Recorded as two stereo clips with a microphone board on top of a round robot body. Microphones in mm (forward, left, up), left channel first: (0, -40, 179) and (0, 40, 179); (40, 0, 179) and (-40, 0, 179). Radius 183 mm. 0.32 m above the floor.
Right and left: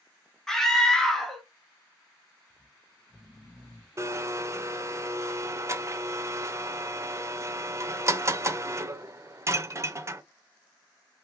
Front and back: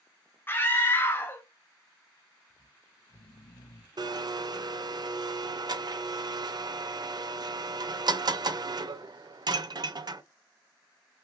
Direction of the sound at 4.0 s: 145° left.